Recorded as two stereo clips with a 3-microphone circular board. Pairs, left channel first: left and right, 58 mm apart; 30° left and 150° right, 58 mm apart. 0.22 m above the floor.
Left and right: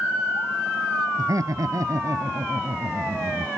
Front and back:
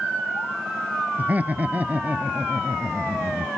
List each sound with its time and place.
1.2 s laughter: 90° right